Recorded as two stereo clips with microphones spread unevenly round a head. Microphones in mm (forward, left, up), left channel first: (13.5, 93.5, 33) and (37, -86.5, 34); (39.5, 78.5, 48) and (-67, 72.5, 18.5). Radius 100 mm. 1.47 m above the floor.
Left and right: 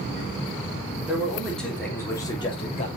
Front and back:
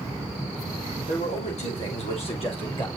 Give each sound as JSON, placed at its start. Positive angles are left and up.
{"t": 1.1, "sound": "a man speaking", "azimuth_deg": 5, "distance_m": 4.0}